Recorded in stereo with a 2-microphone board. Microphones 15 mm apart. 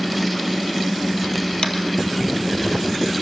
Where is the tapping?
65° left (ahead or behind), 1.6 m.